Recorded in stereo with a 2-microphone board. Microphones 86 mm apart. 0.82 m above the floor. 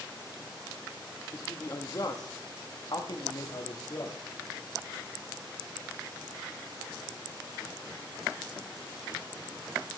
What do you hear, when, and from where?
1.3 s a man speaking: 30° left (ahead or behind), 1.3 m; by 4.2 s 50° left (ahead or behind), 1.8 m